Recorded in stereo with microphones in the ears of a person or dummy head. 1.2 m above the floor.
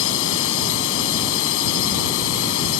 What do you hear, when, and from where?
0.0 s a drone: 70° left (ahead or behind); by 2.8 s 75° left (ahead or behind)